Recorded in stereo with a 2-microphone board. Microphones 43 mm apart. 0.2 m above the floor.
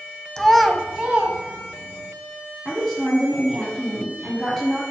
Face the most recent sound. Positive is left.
turn(degrees=5)  # may be behind; listen again after turning